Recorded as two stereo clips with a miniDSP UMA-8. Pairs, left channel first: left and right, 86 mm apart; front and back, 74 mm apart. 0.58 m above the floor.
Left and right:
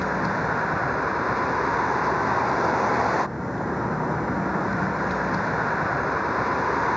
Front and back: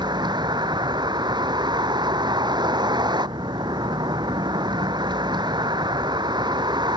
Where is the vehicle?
Straight behind.